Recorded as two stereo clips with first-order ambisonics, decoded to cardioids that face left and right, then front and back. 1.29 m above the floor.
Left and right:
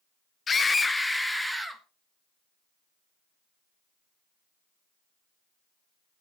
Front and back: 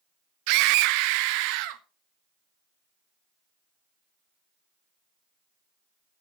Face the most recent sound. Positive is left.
turn(degrees=180)